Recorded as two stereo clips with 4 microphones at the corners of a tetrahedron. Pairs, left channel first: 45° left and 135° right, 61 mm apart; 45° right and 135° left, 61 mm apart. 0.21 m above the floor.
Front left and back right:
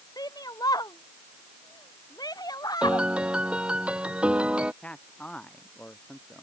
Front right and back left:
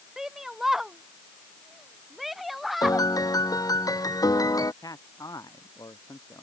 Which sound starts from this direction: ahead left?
A shout, at 0.2 s.